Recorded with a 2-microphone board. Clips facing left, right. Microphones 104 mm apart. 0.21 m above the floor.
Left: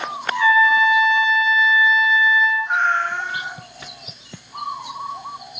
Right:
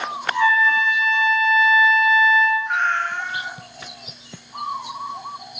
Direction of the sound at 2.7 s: 20° left (ahead or behind).